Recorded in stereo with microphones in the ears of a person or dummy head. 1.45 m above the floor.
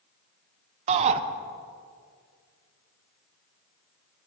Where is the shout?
35° right (ahead or behind), 0.8 m.